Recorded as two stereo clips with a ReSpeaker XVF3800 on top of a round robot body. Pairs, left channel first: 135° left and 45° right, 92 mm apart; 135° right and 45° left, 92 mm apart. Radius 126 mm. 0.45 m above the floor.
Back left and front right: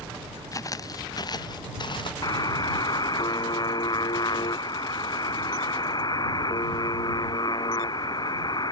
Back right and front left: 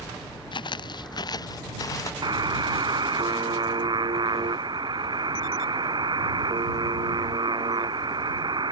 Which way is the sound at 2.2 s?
90° left.